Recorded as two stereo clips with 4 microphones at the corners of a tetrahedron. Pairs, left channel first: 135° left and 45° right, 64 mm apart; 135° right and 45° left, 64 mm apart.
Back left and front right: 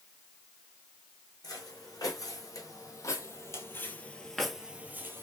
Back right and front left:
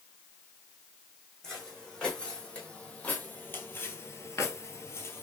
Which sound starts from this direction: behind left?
Footsteps, at 1.4 s.